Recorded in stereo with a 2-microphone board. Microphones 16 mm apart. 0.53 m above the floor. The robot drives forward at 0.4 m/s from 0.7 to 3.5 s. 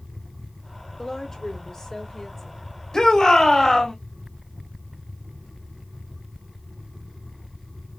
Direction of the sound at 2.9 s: 45° left (ahead or behind).